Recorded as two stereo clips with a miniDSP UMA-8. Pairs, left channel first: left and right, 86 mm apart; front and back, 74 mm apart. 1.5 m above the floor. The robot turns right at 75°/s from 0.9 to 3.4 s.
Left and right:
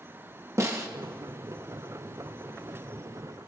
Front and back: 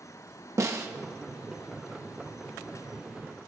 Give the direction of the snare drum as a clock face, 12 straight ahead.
5 o'clock.